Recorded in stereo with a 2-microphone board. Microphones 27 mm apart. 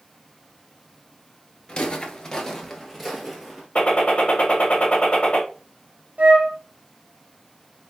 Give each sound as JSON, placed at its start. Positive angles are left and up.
{"t": 1.7, "sound": "footsteps", "side_deg": 40, "distance_m": 0.8}
{"t": 3.8, "sound": "a gunshot", "side_deg": 55, "distance_m": 1.1}
{"t": 6.2, "sound": "a flute", "side_deg": -80, "distance_m": 1.0}